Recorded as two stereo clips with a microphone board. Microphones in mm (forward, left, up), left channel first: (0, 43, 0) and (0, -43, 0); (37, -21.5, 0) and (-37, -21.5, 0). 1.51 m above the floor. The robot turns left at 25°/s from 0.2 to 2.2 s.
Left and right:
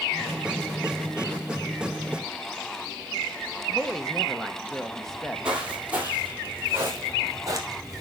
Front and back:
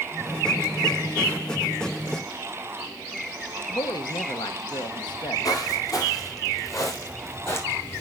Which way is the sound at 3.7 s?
5° left.